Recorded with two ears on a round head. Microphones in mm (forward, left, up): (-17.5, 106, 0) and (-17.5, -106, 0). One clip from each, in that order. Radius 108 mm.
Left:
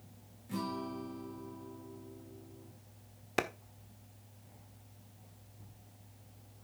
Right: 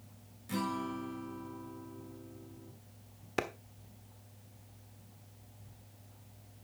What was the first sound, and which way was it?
A guitar, 55° right (ahead or behind).